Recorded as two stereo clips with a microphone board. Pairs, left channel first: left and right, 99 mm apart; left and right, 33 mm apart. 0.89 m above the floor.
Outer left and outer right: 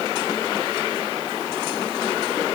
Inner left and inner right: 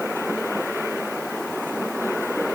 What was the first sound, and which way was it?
Only background noise.